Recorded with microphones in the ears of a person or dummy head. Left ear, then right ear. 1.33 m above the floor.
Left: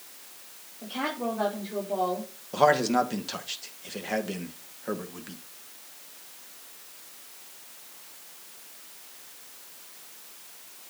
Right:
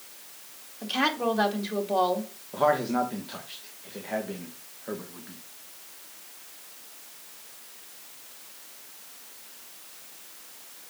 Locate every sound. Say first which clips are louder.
0.8 s a woman speaking: right 5 dB; 55° right (ahead or behind), 2.5 m
2.5 s a man speaking: left 2 dB; 80° left, 1.6 m